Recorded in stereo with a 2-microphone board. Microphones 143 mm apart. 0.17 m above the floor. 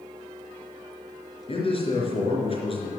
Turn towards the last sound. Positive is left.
turn(degrees=40)  # may be behind; listen again after turning